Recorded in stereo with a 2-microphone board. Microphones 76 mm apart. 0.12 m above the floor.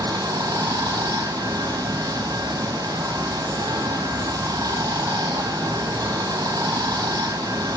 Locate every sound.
0.0 s running water: 60° right (ahead or behind), 2.5 m